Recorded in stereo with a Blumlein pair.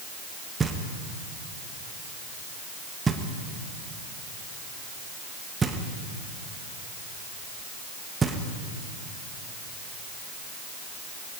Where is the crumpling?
I don't hear crumpling.